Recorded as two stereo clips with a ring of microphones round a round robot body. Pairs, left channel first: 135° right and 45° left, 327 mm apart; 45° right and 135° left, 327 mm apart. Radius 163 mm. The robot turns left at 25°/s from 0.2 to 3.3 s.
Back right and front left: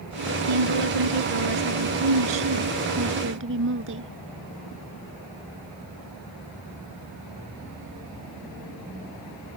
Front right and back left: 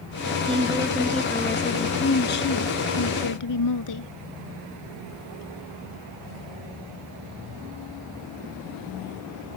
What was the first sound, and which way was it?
A woman speaking, 60° left.